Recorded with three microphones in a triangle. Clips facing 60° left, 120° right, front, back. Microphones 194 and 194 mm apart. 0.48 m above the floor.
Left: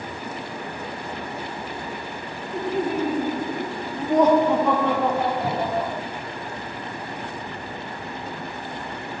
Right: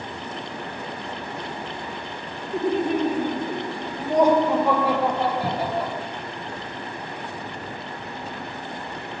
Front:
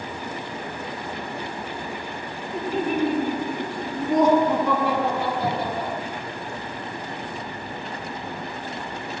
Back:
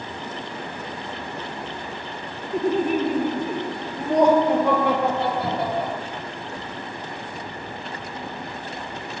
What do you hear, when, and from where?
2.5 s laughter: 165° right, 1.1 m; by 5.9 s 155° left, 2.5 m
5.4 s a cupboard door: 100° right, 5 m